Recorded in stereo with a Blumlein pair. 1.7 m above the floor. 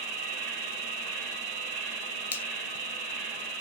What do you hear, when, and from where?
0.0 s an insect: 50° right, 1.2 m
2.3 s a finger snap: 65° left, 0.6 m